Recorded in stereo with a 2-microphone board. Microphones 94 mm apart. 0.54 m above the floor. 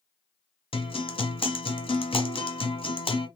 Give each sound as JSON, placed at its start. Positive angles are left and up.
{"t": 0.7, "sound": "a guitar", "side_deg": 65, "distance_m": 0.8}